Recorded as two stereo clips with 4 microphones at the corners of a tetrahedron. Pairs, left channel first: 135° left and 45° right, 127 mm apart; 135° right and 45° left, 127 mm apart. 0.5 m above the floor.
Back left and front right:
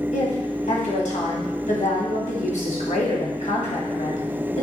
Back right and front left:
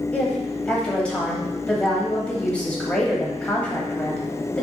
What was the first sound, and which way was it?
A woman speaking, 145° left.